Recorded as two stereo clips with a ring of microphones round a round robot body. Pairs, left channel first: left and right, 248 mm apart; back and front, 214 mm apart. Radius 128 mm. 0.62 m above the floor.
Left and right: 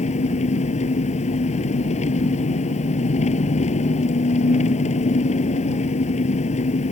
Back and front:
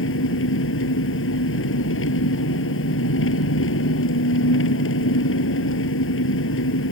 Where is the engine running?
155° left.